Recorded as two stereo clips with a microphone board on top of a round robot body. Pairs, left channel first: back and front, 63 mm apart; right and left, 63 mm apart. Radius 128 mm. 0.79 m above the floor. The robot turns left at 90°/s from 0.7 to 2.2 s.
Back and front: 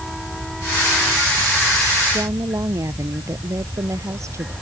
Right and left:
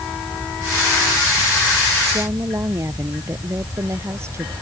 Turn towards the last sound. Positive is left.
turn(degrees=45)